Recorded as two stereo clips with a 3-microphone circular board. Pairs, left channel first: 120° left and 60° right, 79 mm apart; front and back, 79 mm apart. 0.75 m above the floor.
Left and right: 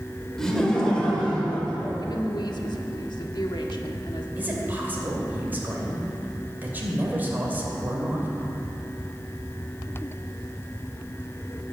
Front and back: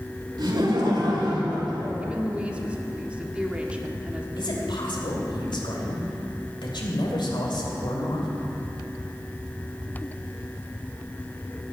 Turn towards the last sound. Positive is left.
turn(degrees=5)